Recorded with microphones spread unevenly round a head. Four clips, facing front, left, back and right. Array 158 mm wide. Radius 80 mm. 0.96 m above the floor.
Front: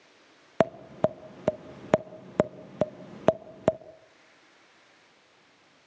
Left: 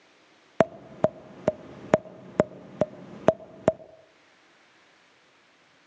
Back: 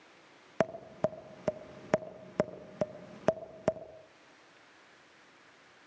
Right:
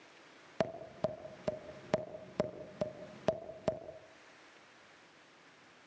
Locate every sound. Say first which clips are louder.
0.6 s tapping: left 12 dB, front 6 dB; 65° left, 0.8 m